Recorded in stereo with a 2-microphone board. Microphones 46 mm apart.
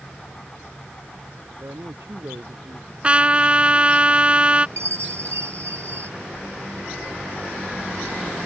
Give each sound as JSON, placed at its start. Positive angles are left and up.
{"t": 1.6, "sound": "a woman speaking", "side_deg": -65}
{"t": 3.0, "sound": "a trumpet", "side_deg": -25}
{"t": 4.8, "sound": "a chime", "side_deg": -75}